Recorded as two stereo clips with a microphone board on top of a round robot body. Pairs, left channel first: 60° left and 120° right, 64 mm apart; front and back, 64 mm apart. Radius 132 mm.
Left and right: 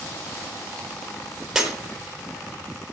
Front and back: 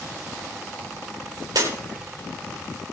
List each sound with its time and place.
1.6 s breaking glass: 155° left, 4 m